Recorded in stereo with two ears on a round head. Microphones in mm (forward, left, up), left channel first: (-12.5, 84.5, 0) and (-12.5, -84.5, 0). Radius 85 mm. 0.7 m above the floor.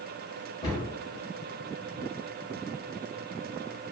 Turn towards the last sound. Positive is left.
turn(degrees=20)  # may be behind; listen again after turning